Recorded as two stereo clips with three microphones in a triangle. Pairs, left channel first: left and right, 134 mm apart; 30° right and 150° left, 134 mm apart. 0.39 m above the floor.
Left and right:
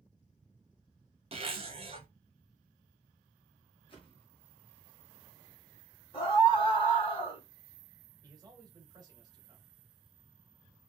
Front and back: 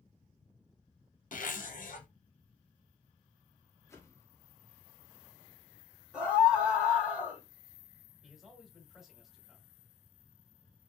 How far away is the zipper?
About 0.9 m.